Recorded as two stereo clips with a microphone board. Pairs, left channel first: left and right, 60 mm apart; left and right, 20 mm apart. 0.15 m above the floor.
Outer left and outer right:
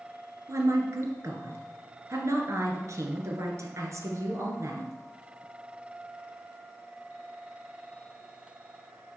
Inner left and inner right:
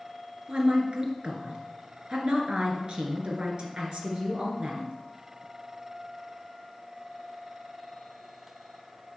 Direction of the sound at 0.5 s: 55° right (ahead or behind).